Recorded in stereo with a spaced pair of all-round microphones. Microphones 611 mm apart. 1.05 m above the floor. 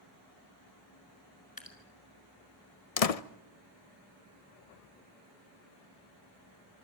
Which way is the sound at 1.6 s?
35° left (ahead or behind).